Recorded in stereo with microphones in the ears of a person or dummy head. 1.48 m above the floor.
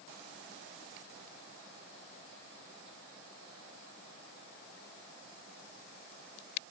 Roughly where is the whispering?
I don't hear whispering.